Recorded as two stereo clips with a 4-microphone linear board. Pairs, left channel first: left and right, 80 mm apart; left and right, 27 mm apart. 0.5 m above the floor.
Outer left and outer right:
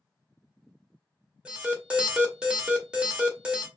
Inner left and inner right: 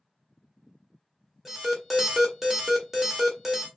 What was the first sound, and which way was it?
An alarm, 15° right (ahead or behind).